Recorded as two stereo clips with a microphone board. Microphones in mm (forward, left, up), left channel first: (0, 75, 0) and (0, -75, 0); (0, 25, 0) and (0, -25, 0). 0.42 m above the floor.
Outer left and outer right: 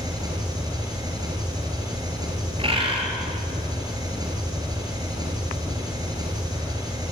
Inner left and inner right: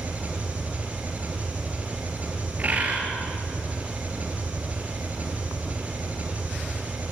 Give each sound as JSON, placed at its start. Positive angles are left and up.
{"t": 0.0, "sound": "an engine running", "side_deg": -25, "distance_m": 5.0}
{"t": 2.6, "sound": "a bird", "side_deg": -35, "distance_m": 4.0}